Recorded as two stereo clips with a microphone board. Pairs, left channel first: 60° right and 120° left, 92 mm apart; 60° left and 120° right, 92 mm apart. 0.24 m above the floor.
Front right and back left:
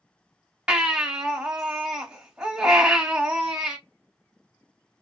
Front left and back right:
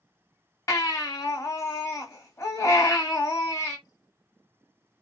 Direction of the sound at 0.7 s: 50° left.